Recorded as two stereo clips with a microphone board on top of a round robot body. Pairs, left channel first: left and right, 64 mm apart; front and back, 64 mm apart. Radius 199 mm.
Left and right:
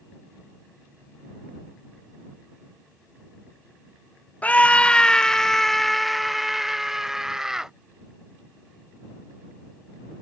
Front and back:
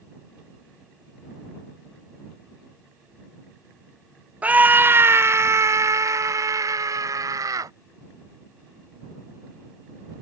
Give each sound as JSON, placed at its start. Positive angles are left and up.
{"t": 4.4, "sound": "a scream", "azimuth_deg": 135}